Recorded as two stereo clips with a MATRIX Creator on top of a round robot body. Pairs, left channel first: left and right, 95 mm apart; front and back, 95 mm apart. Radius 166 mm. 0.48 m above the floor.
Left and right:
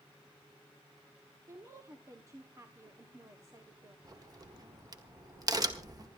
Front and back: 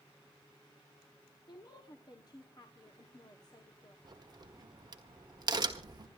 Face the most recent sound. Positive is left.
turn(degrees=-135)